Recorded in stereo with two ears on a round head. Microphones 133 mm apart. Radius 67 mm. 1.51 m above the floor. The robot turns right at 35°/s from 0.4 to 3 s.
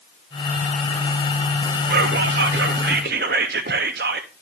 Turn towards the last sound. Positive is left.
turn(degrees=-70)